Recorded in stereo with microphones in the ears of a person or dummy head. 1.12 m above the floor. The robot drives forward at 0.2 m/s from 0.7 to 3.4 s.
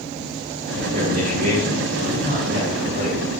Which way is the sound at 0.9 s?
40° right (ahead or behind).